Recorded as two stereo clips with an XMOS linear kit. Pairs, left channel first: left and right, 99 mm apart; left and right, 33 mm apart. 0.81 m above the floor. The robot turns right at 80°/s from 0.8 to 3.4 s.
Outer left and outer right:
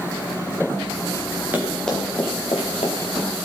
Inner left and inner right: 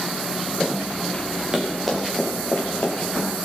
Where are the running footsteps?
20° right (ahead or behind), 6 m; by 3.5 s 45° left (ahead or behind), 5 m.